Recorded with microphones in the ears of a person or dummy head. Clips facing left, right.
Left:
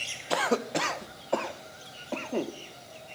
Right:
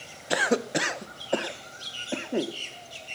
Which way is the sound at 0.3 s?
15° right (ahead or behind).